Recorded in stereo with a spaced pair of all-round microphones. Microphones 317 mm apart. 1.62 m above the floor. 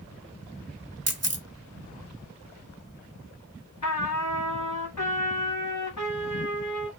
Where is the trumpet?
60° left (ahead or behind), 1.1 m.